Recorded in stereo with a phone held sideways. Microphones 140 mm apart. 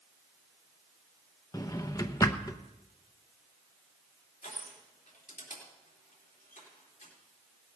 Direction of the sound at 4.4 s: 75° left (ahead or behind).